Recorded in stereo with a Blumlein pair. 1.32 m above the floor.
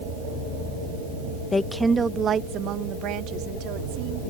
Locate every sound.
1.5 s a woman speaking: 15° left; by 4.2 s 45° right